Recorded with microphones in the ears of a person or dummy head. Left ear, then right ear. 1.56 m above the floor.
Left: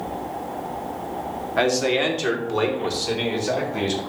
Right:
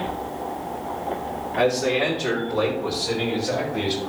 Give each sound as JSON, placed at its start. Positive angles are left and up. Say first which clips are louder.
{"t": 1.6, "sound": "a man speaking", "louder": "left 1 dB", "side_deg": 75, "distance_m": 3.0}